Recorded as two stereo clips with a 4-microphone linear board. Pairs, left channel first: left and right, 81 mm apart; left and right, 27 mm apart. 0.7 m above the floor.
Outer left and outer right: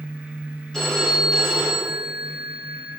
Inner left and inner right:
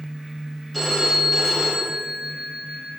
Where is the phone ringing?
5° left (ahead or behind), 7 m.